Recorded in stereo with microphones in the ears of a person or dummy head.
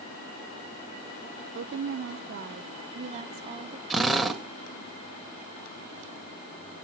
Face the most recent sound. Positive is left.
turn(degrees=5)  # may be behind; listen again after turning